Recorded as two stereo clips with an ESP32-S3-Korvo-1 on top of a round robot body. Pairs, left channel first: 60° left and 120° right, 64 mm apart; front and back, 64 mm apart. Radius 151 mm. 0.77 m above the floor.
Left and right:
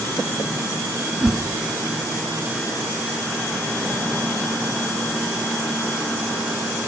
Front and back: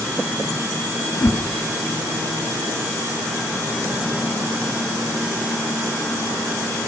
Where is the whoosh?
40° right, 2.5 m.